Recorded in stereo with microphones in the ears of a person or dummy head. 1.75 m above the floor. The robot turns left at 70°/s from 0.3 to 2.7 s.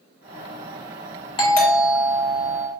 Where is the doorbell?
30° left, 0.8 m; by 2.7 s 60° right, 0.8 m.